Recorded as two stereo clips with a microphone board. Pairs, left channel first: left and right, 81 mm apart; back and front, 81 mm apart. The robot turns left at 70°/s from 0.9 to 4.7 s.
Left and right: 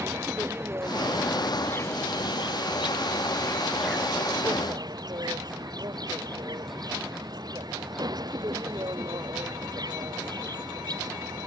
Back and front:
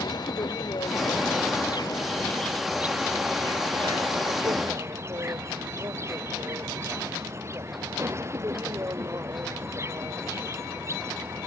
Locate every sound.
0.0 s an insect: 150° right; by 11.5 s 55° right